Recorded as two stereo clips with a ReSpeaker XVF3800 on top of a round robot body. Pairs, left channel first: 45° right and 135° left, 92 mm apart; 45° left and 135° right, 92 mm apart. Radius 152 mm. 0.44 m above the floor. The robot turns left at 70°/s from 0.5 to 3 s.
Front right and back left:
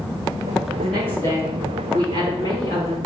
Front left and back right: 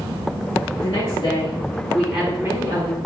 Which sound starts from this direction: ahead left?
A woman speaking, at 0.8 s.